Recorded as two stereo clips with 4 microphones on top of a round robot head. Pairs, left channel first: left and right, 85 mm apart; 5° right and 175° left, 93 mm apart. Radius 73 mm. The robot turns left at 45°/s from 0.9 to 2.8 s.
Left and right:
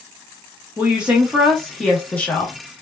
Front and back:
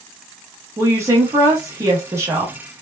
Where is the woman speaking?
150° right, 0.9 m; by 2.5 s 135° left, 0.9 m.